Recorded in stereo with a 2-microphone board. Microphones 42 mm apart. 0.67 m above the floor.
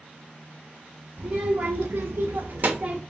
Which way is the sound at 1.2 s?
40° right (ahead or behind).